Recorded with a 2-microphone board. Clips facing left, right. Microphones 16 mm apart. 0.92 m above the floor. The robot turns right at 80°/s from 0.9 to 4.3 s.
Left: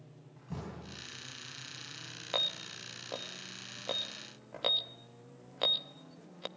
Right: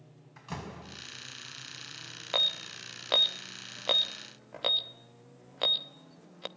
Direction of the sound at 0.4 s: 70° right (ahead or behind).